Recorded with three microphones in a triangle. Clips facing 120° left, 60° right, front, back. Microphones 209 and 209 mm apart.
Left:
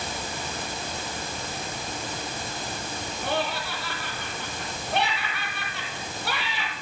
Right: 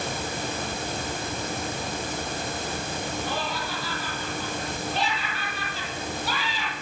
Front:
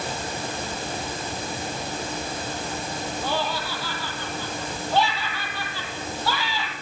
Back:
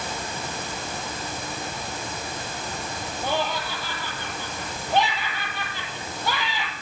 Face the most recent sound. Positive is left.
turn(degrees=110)